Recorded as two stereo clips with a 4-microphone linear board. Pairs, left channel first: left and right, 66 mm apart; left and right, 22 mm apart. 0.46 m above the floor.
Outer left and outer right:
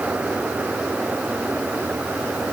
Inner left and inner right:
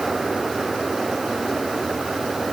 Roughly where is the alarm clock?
I don't hear an alarm clock.